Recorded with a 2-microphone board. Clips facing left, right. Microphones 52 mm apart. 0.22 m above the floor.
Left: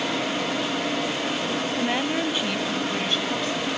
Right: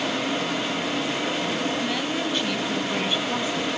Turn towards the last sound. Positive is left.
turn(degrees=-25)  # may be behind; listen again after turning